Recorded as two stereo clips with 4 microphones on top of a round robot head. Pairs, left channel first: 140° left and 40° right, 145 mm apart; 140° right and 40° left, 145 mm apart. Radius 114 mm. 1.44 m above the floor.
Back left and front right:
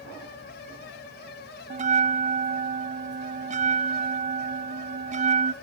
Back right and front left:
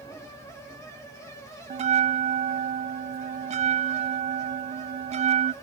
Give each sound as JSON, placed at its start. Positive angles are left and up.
{"t": 1.7, "sound": "a bell", "azimuth_deg": 0, "distance_m": 0.7}